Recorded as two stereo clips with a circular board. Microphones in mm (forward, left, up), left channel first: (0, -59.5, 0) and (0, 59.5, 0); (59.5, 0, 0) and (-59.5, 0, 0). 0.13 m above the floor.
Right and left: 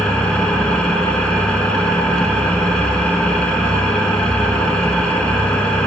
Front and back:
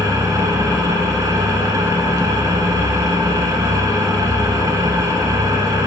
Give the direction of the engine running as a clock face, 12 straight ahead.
5 o'clock.